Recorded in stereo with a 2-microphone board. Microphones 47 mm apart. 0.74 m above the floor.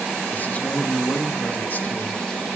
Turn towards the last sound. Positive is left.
turn(degrees=40)  # may be behind; listen again after turning